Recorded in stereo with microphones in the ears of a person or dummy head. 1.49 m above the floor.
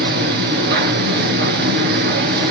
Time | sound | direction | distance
0.0 | a machine running | 60° right (ahead or behind) | 3.5 m